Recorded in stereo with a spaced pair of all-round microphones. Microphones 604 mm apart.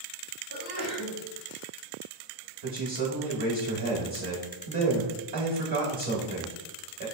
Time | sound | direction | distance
0.5 | a sneeze | 40° left (ahead or behind) | 1.8 m
2.6 | a man speaking | 50° right (ahead or behind) | 0.9 m